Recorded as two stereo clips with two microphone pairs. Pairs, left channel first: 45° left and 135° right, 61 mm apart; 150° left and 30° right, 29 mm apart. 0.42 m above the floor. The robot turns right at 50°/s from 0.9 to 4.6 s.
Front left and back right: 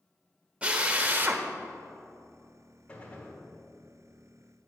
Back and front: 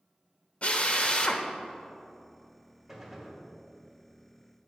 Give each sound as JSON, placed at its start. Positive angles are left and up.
{"t": 0.6, "sound": "a drill", "azimuth_deg": 165, "distance_m": 0.5}
{"t": 2.9, "sound": "a gunshot", "azimuth_deg": 30, "distance_m": 1.2}